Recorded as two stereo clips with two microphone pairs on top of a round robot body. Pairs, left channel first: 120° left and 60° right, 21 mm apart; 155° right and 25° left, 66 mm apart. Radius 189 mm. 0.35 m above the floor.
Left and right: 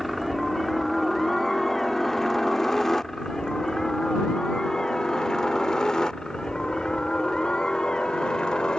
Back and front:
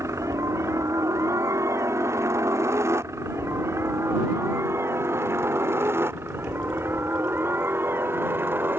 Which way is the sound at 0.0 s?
35° left.